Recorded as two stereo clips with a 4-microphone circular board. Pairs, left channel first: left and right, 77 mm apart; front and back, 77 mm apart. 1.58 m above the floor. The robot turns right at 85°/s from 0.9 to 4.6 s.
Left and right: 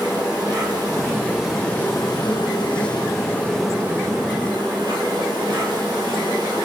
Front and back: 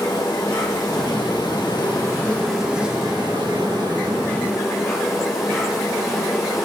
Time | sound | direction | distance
0.0 | an insect | 50° right | 6 m